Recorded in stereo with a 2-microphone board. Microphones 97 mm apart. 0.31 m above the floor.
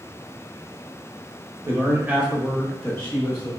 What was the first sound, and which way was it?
A man speaking, 25° right (ahead or behind).